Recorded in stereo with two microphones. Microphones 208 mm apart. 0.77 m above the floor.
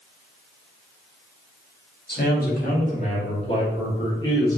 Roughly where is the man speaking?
Left.